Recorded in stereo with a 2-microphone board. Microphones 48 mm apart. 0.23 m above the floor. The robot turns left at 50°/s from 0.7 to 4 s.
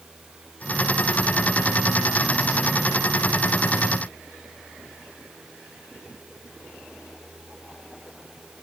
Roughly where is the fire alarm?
I don't hear a fire alarm.